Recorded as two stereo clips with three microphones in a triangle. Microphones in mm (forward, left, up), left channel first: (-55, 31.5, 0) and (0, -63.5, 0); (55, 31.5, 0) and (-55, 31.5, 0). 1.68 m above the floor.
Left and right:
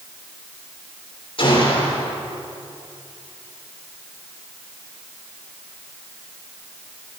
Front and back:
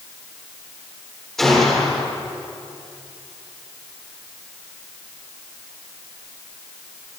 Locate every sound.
1.4 s a gunshot: 85° left, 7 m